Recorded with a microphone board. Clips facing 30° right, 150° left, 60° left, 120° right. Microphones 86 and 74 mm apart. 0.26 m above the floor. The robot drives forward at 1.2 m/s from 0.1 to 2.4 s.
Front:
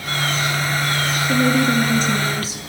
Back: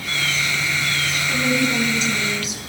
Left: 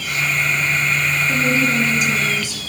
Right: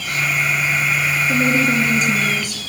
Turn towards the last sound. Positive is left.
turn(degrees=-85)